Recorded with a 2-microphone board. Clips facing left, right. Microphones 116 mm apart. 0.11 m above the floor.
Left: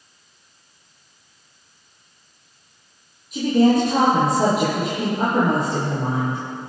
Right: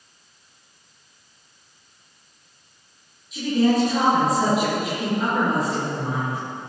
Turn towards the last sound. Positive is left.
turn(degrees=50)  # may be behind; listen again after turning